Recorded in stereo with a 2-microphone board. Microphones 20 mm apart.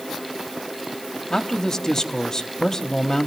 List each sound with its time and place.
1.3 s a man speaking: 30° left (ahead or behind), 1.0 m